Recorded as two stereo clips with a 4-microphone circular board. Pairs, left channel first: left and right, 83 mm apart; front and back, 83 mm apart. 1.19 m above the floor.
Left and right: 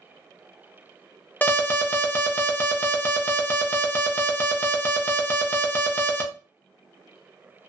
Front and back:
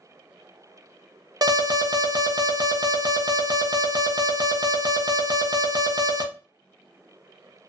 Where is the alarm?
155° left, 0.6 m.